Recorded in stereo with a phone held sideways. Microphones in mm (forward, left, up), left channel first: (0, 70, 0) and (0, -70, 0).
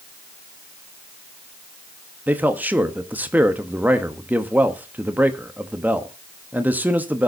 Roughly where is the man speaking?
Centre.